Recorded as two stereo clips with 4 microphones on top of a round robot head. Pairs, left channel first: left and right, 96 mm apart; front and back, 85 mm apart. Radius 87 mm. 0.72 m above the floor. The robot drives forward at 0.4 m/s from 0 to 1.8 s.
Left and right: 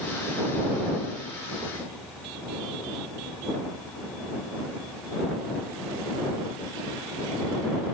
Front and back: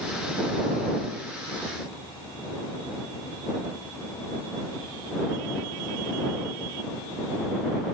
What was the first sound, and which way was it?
Only background noise.